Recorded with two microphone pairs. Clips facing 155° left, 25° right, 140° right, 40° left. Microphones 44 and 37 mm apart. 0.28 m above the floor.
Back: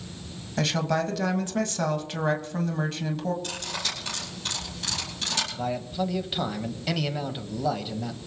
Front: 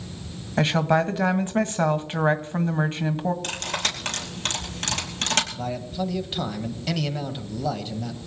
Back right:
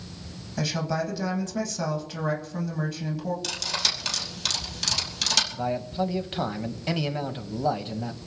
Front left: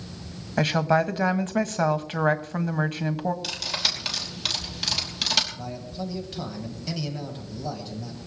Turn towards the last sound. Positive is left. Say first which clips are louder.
# even, back right 7 dB
turn(degrees=-120)